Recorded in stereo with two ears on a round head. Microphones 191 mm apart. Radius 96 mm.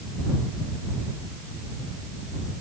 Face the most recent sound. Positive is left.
No sound to turn to.